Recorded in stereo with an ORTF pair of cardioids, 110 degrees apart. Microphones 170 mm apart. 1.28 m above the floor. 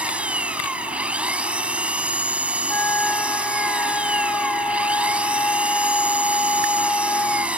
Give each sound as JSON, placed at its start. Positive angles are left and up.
{"t": 0.0, "sound": "an engine running", "azimuth_deg": -5}
{"t": 2.7, "sound": "a flute", "azimuth_deg": 10}